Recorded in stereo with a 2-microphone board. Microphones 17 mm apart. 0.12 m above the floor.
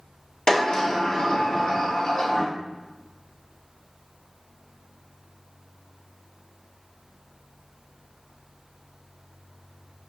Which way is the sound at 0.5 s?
50° left (ahead or behind).